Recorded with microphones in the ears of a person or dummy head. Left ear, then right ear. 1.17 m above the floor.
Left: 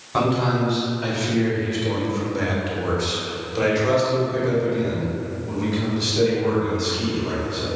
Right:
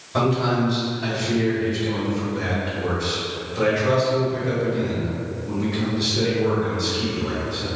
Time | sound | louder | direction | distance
0.1 | a man speaking | even | 30° left (ahead or behind) | 1.9 m